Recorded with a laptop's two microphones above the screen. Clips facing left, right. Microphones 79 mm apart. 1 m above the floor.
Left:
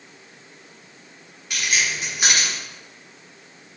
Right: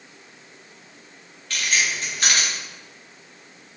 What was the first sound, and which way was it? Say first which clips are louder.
Keys jangling: even; 15° left (ahead or behind).